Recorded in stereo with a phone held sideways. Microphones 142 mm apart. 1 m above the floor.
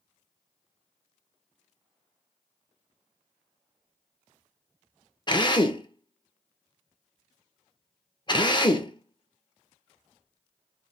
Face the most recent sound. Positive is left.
turn(degrees=35)  # may be behind; listen again after turning